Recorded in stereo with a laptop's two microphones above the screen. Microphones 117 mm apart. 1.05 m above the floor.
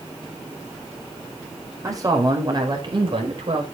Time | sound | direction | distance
1.8 | a man speaking | 30° right (ahead or behind) | 5 m